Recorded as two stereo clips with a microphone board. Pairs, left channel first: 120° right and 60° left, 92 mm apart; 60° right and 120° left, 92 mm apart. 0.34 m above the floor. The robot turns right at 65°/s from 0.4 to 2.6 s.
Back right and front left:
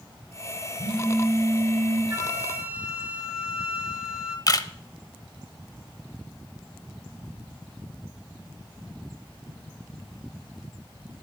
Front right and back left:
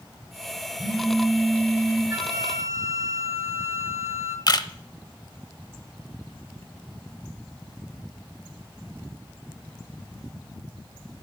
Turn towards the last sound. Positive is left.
turn(degrees=-85)